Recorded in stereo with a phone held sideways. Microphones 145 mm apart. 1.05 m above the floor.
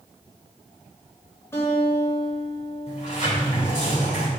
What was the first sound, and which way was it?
A guitar, 20° left (ahead or behind).